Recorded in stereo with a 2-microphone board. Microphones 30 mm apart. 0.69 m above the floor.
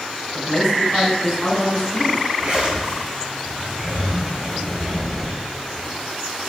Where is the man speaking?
25° left (ahead or behind), 6 m.